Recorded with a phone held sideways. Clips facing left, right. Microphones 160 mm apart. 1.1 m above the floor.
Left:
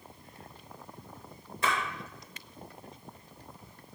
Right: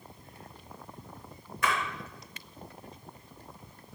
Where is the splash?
30° left (ahead or behind), 2 m.